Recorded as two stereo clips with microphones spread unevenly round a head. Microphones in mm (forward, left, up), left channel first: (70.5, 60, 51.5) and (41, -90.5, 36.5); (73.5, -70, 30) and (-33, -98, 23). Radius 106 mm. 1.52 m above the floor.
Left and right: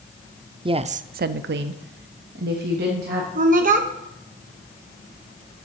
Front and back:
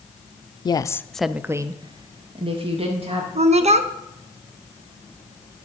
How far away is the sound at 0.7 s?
About 0.5 m.